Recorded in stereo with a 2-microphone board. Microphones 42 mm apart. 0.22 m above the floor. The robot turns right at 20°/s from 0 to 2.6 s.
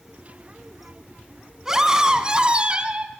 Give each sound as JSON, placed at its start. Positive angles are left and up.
{"t": 1.6, "sound": "a scream", "side_deg": -10, "distance_m": 2.5}